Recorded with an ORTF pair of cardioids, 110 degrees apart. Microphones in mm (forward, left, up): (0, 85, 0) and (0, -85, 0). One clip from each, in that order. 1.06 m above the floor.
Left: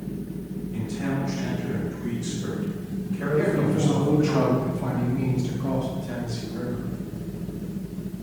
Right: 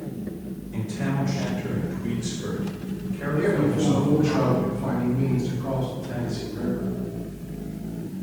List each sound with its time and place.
0.7 s a man speaking: 50° right, 1.6 m; by 4.3 s 20° left, 1.7 m
3.3 s a man speaking: 40° left, 1.6 m